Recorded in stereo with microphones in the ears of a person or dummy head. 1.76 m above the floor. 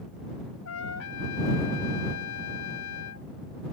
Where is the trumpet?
85° left.